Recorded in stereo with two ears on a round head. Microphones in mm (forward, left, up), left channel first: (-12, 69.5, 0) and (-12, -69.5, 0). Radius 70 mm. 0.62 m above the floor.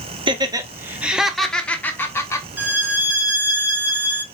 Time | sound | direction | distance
0.3 | laughter | 35° right (ahead or behind) | 0.8 m
2.6 | a violin | 10° right (ahead or behind) | 0.8 m